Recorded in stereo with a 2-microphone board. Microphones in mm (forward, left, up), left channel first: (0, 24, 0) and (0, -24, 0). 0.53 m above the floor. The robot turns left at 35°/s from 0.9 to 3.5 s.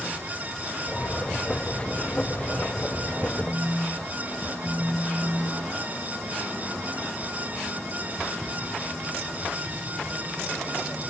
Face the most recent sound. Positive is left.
turn(degrees=35)  # may be behind; listen again after turning